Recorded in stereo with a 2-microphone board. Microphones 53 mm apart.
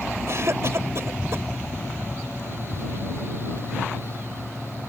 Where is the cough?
60° right (ahead or behind).